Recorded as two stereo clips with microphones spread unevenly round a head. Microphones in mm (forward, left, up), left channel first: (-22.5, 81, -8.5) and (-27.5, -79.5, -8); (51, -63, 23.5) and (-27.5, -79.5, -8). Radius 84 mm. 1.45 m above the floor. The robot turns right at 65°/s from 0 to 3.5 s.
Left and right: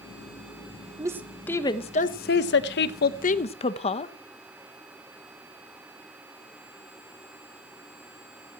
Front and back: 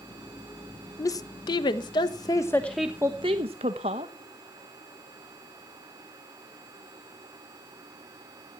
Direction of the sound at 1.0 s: 25° right.